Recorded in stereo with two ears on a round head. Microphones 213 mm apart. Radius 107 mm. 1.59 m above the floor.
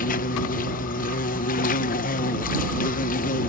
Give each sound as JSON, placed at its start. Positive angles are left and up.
{"t": 0.0, "sound": "an insect", "side_deg": 35}